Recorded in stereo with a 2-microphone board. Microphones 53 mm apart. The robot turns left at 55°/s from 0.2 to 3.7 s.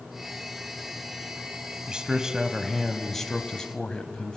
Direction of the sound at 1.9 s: 15° right (ahead or behind).